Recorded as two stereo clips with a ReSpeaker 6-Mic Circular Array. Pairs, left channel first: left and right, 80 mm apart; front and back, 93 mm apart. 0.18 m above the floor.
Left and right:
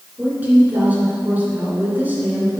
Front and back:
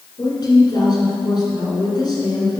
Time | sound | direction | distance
0.2 | a woman speaking | 30° right | 2 m